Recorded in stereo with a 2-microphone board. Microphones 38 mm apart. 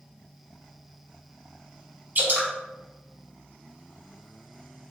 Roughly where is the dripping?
Right.